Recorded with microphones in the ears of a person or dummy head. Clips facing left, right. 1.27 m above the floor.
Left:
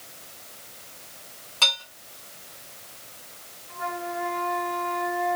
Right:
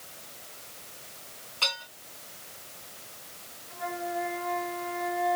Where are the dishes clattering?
60° left (ahead or behind), 6.5 m.